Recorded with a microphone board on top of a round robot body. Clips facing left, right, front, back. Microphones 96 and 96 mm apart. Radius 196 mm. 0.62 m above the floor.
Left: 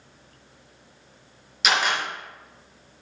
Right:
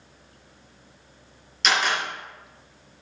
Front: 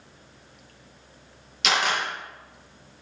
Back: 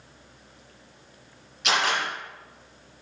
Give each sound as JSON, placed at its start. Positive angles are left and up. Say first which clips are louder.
{"t": 1.6, "sound": "a camera shutter", "louder": "even, even", "azimuth_deg": 10, "distance_m": 3.5}